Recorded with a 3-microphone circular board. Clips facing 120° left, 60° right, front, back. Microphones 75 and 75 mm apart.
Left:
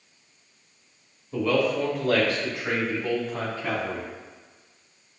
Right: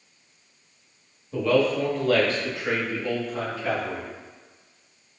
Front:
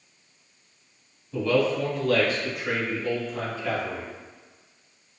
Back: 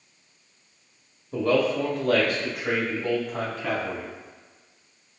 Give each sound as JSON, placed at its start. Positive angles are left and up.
{"t": 1.3, "sound": "a man speaking", "azimuth_deg": -150, "distance_m": 1.4}